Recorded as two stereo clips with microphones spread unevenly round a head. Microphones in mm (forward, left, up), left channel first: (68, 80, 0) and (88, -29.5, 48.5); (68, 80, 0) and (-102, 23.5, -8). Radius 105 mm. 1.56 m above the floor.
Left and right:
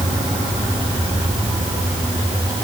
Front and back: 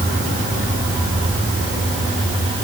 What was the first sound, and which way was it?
Only background noise.